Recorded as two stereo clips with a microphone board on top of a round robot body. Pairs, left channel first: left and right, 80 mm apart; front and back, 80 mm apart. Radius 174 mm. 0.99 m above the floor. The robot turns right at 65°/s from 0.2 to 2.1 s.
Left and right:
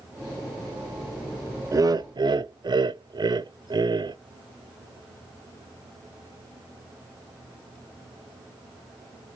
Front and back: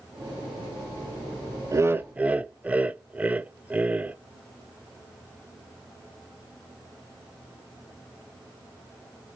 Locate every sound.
1.7 s laughter: 135° right, 0.6 m; by 4.2 s 110° right, 0.6 m